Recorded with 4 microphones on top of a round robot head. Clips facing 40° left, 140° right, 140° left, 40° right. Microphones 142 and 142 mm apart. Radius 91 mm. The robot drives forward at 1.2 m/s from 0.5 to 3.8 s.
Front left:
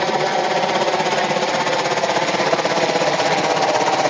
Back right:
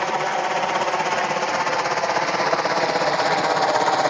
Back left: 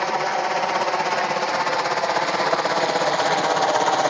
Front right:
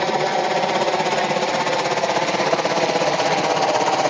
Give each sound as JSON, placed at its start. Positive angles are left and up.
{"t": 0.0, "sound": "a helicopter", "azimuth_deg": 5}